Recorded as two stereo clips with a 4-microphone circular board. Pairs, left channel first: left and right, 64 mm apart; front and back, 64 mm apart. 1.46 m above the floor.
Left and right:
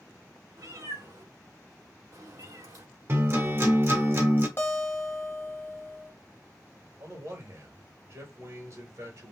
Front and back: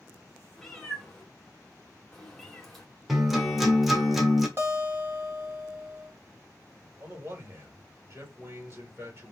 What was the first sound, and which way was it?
A cat meowing, 90° right.